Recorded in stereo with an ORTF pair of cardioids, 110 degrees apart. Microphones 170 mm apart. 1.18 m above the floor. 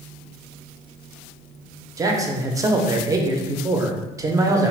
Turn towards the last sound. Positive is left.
turn(degrees=-20)